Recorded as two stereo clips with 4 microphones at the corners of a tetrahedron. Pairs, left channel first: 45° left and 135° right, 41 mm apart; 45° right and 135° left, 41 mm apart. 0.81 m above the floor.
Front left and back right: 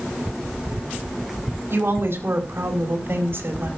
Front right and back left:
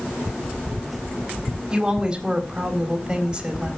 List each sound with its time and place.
1.7 s a woman speaking: 155° right, 4 m